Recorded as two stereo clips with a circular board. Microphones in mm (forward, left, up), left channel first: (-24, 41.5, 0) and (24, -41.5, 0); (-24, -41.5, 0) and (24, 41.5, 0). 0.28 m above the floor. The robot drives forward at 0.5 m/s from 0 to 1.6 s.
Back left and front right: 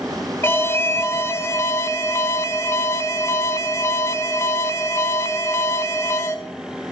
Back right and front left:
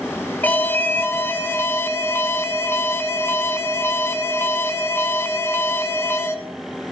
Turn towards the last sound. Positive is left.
turn(degrees=175)